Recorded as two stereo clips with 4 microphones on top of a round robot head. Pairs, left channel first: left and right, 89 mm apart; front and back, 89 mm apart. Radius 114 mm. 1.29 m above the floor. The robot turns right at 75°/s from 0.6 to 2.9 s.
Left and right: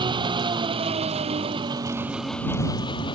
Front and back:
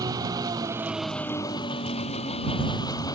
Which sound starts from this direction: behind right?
An engine running, at 0.0 s.